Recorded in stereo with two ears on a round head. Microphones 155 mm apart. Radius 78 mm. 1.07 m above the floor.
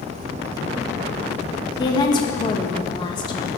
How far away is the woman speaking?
About 1.3 m.